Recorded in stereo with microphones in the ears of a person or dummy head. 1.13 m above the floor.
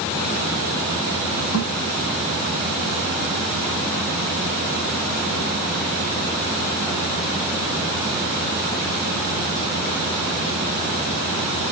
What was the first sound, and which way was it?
A thud, 70° left (ahead or behind).